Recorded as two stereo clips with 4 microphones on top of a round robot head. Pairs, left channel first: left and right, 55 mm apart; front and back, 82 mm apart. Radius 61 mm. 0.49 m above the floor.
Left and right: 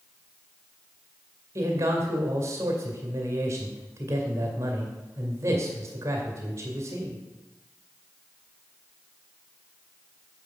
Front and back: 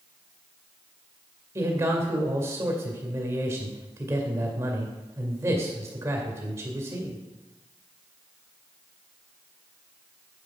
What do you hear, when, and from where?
1.6 s a man speaking: 120° right, 2 m